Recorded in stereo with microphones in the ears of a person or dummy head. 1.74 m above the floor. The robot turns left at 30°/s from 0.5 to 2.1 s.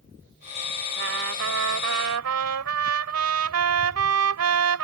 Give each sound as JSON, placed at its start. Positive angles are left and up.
{"t": 1.0, "sound": "a trumpet", "azimuth_deg": -60}